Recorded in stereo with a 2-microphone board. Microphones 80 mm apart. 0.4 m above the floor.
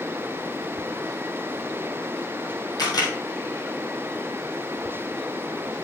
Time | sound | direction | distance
2.8 | a camera shutter | 55° left (ahead or behind) | 3 m